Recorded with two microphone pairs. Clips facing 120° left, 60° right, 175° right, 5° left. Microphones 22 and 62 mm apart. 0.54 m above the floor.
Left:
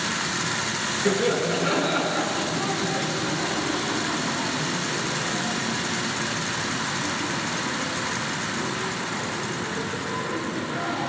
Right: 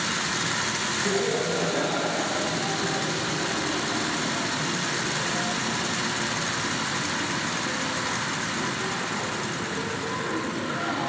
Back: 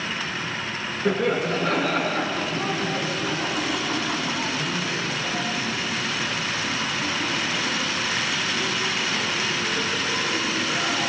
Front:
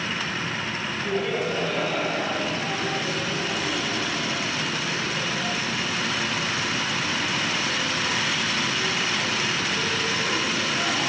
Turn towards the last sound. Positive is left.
turn(degrees=-105)